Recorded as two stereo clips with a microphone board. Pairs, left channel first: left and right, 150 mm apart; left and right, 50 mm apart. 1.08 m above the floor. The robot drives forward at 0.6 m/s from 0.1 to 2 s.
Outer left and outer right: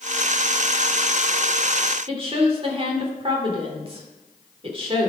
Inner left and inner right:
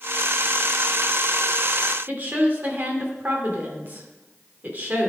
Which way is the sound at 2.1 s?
40° right (ahead or behind).